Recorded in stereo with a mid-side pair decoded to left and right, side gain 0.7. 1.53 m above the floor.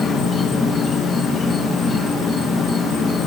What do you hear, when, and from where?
0.0 s an insect: 25° left, 2 m